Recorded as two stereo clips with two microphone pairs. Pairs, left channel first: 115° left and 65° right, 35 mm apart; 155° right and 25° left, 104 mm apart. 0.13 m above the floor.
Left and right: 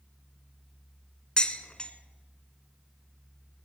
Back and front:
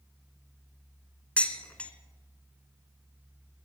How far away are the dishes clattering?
About 1.0 m.